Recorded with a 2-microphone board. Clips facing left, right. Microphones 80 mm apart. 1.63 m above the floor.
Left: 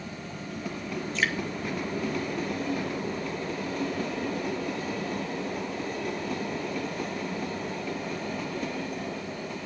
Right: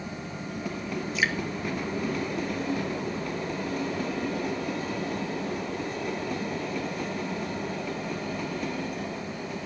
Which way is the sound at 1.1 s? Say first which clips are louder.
Right 1 dB; 5° right (ahead or behind).